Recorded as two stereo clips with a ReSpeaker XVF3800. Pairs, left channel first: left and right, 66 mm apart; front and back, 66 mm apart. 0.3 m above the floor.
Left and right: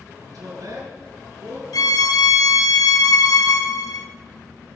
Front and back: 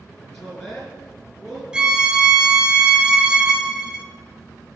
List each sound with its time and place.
0.2 s a woman speaking: 80° right, 4 m; by 1.6 s 95° right, 4 m
1.7 s a violin: 105° left, 0.9 m